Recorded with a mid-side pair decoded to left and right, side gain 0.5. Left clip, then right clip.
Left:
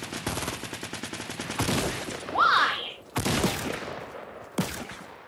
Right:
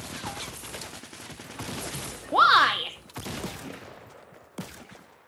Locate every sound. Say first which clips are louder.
2.3 s a shout: right 3 dB; 70° right, 1.3 m